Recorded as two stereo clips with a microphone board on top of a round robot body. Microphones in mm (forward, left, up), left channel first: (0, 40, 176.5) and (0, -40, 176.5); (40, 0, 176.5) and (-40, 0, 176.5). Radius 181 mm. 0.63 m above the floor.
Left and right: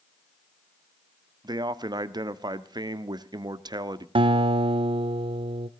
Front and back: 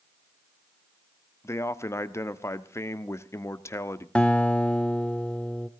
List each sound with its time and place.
1.4 s a man speaking: 60° right, 1.3 m
4.2 s a guitar: 80° right, 0.6 m